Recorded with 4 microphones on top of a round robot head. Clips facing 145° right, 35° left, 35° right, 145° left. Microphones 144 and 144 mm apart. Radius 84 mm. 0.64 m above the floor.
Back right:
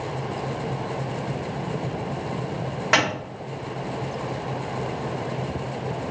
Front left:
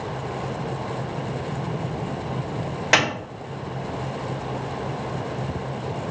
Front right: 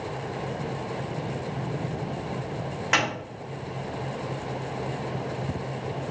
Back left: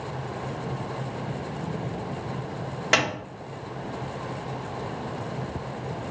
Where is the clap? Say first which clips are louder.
Front left 1 dB, back left 2 dB; 95° left, 2.5 m.